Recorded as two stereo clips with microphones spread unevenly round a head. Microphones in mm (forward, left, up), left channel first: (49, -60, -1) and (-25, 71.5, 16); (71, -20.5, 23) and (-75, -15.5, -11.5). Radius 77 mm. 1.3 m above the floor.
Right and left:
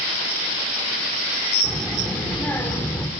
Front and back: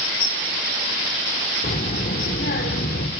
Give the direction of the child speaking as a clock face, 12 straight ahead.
11 o'clock.